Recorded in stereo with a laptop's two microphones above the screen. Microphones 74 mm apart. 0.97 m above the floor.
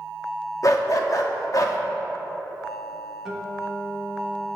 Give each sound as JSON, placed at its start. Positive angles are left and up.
{"t": 0.6, "sound": "a dog barking", "side_deg": 50, "distance_m": 0.6}
{"t": 3.2, "sound": "a guitar", "side_deg": -5, "distance_m": 0.9}